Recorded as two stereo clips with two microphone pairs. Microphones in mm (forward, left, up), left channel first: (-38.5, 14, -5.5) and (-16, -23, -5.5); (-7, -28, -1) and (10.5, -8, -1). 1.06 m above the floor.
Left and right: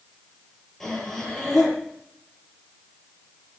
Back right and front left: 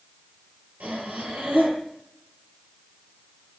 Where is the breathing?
40° left, 6.5 m.